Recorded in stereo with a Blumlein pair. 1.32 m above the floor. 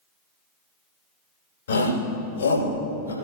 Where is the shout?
65° left, 4.5 m; by 3.1 s 75° left, 4.5 m.